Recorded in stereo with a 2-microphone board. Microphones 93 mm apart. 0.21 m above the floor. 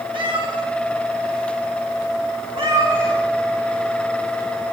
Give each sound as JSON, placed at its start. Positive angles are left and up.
{"t": 0.1, "sound": "a cat meowing", "side_deg": -60, "distance_m": 2.5}